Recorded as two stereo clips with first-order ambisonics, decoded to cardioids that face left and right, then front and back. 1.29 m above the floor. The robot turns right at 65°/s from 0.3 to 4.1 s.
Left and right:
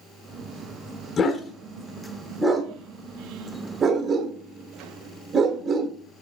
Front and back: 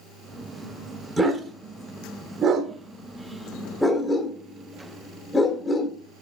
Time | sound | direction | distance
1.2 | a dog barking | 90° left | 0.9 m